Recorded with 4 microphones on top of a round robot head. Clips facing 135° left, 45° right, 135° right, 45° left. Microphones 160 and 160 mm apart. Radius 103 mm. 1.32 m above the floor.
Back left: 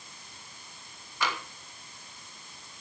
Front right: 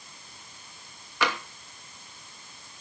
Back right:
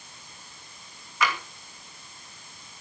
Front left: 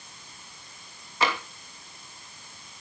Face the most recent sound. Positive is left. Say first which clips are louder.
# front right 4 dB, front left 1 dB
turn(degrees=-15)